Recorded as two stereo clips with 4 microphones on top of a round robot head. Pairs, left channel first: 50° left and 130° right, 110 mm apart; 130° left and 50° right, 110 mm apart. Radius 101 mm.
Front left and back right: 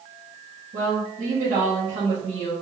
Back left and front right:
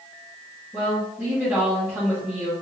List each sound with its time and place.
0.7 s a woman speaking: 135° right, 1.3 m